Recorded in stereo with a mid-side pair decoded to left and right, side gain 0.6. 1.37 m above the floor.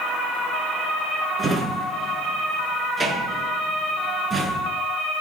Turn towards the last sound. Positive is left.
turn(degrees=-30)